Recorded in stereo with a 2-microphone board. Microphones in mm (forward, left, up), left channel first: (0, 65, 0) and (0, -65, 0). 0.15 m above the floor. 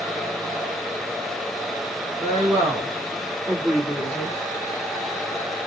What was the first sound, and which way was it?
A woman speaking, 25° right (ahead or behind).